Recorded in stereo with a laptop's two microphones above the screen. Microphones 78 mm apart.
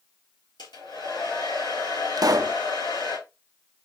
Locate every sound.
0.6 s a hair dryer: 70° left (ahead or behind), 3 m
2.2 s a pop: 55° right (ahead or behind), 0.6 m